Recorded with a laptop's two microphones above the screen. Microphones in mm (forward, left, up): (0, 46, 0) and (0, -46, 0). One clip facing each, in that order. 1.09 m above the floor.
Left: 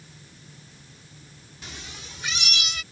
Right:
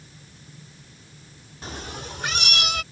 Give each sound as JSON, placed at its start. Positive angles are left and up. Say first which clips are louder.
{"t": 1.6, "sound": "a cat meowing", "louder": "right 8 dB", "side_deg": -40}